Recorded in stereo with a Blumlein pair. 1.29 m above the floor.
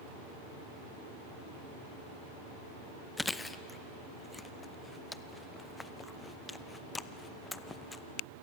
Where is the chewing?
10° left, 0.7 m.